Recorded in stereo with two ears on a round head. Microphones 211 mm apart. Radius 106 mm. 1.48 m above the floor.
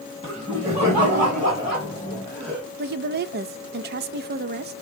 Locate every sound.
0.2 s laughter: 25° right (ahead or behind), 3 m; by 2.6 s 40° right (ahead or behind), 4 m
2.8 s a woman speaking: 45° right (ahead or behind), 0.5 m